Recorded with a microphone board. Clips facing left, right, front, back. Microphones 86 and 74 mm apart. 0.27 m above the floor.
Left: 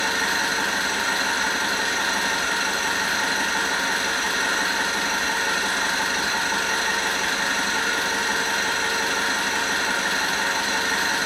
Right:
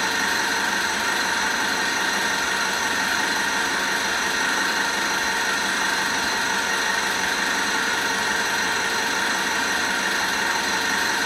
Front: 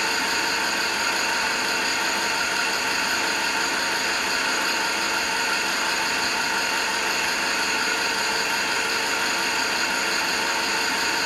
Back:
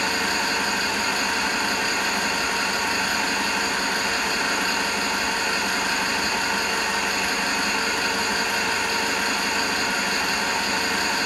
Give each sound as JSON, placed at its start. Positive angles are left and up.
{"t": 0.0, "sound": "an engine running", "azimuth_deg": -135, "distance_m": 1.6}